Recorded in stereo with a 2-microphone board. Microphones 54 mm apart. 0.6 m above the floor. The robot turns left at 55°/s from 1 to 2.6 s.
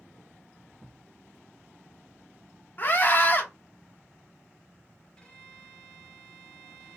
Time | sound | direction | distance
0.8 | a thud | 10° right (ahead or behind) | 1.2 m
2.8 | a scream | 40° left (ahead or behind) | 1.1 m
5.2 | a violin | 20° left (ahead or behind) | 1.6 m